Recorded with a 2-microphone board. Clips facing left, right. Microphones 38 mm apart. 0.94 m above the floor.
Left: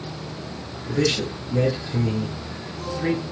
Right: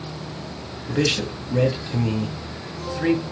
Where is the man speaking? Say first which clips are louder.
Even; 45° right (ahead or behind), 1.6 m.